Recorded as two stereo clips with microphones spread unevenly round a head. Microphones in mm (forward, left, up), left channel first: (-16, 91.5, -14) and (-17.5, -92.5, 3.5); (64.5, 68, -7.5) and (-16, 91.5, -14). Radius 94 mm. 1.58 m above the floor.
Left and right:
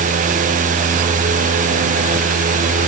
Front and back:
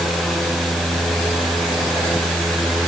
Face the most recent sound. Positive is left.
No sound to turn to.